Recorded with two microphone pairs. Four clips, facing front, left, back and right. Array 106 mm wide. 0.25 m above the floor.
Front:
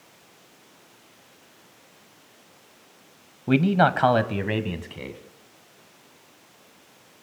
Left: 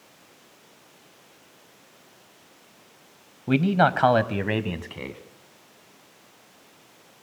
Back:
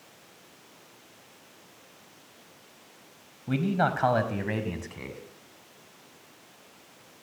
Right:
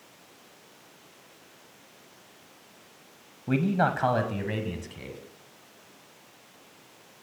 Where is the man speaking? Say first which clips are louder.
Left 5 dB, front 7 dB; 20° left, 1.5 m; by 5.2 s 105° left, 2.5 m.